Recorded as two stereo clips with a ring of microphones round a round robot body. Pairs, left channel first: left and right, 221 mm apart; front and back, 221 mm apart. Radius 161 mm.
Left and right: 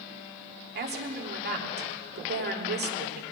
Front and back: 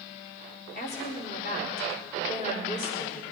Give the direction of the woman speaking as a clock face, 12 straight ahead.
2 o'clock.